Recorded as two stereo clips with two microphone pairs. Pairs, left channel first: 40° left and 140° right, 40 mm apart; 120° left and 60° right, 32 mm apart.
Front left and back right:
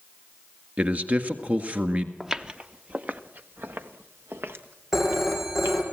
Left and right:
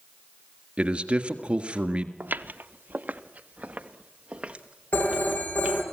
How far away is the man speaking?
About 1.7 m.